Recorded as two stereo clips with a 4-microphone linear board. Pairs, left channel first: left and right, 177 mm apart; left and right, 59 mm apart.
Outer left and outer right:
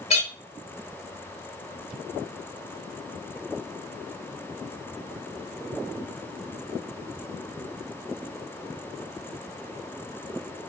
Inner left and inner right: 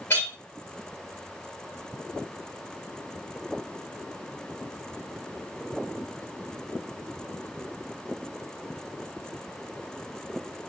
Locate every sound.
0.1 s a clink: 40° left (ahead or behind), 2.0 m